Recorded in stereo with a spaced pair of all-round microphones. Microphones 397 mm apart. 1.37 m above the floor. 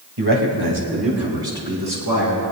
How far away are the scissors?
I don't hear scissors.